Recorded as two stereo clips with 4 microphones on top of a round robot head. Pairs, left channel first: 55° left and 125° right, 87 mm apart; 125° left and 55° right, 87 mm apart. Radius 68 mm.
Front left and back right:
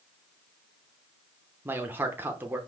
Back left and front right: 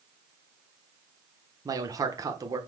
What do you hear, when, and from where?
1.6 s a man speaking: 70° right, 1.0 m